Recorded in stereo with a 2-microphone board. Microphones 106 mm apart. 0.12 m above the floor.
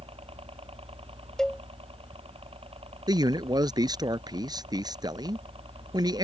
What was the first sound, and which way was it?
A helicopter, 65° right (ahead or behind).